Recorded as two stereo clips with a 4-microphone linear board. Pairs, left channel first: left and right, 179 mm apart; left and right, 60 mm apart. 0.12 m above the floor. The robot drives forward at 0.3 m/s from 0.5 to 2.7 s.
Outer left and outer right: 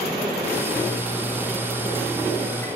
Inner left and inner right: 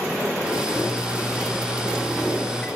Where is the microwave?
15° left (ahead or behind), 1.1 m.